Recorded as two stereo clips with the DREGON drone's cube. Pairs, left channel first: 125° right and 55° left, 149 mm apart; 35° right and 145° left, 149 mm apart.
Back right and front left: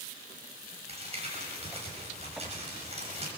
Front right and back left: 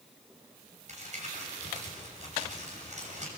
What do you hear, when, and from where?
0.9 s crumpling: 105° left, 6.5 m